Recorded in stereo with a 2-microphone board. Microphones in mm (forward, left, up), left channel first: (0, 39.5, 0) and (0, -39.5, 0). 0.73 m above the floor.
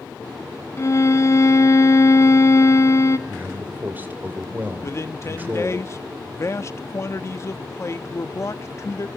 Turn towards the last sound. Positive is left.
turn(degrees=35)  # may be behind; listen again after turning